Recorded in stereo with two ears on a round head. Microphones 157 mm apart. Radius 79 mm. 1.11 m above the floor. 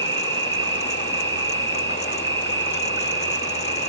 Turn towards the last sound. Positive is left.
turn(degrees=-15)  # may be behind; listen again after turning